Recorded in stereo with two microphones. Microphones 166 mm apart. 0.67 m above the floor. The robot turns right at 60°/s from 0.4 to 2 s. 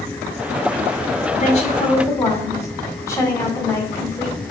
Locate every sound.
1.4 s a woman speaking: 125° left, 1.8 m; by 4.4 s 160° left, 1.8 m